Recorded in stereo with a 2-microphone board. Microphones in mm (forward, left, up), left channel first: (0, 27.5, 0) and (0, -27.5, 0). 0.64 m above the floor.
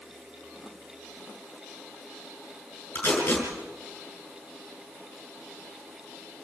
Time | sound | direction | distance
3.0 | tape being pulled | 45° left (ahead or behind) | 7.5 m